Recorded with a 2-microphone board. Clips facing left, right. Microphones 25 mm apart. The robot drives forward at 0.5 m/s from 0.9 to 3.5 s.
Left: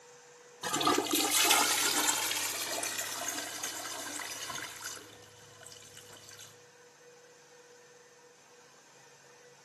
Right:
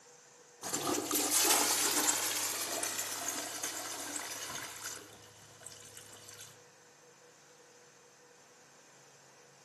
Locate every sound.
0.6 s a toilet flushing: 55° left (ahead or behind), 0.6 m; by 6.5 s 15° left (ahead or behind), 1.7 m